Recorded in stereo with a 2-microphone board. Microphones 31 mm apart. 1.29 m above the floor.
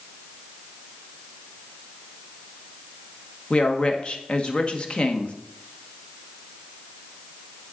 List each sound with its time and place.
3.5 s a woman speaking: 35° left (ahead or behind), 1.1 m